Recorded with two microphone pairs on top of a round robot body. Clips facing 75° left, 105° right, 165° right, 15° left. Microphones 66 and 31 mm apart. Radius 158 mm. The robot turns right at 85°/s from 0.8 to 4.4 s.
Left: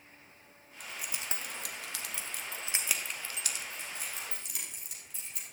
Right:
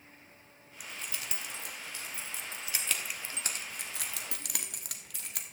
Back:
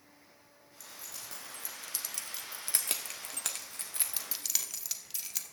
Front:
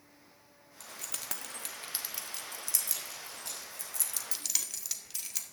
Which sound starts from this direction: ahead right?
Keys jangling, at 0.8 s.